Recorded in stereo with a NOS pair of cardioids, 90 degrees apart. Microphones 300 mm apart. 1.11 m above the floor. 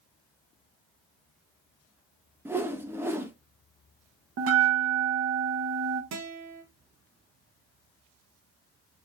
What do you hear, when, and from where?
2.5 s a whoosh: 10° right, 0.6 m
4.4 s a bell: 50° right, 0.9 m
6.1 s a guitar: 65° right, 1.2 m